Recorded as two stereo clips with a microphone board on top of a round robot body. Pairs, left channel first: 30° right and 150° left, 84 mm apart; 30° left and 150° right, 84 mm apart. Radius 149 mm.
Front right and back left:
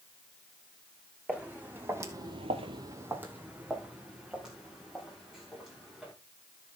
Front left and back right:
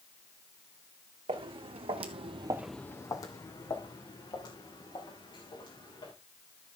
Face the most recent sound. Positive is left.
turn(degrees=65)